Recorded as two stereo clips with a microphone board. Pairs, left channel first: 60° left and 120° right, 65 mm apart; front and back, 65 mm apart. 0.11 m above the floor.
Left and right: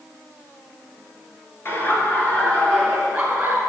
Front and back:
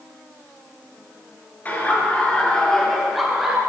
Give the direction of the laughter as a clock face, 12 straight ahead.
11 o'clock.